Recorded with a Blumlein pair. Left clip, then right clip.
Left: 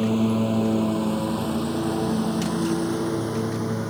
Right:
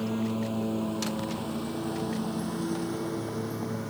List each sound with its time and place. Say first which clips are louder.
0.0 s a lawn mower: left 8 dB; 25° left; by 3.9 s 20° left